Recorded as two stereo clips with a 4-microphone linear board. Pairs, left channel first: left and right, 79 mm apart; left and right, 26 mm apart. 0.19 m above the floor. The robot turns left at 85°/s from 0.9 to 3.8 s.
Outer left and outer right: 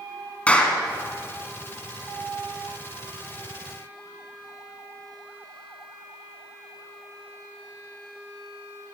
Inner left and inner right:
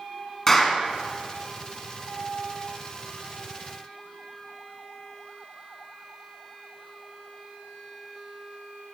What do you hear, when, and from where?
0.5 s a clap: 15° left (ahead or behind), 1.4 m